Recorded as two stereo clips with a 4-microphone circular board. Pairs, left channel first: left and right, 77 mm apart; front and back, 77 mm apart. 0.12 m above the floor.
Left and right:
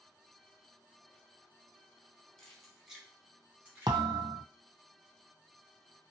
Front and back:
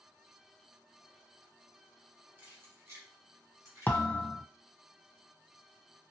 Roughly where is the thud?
Right.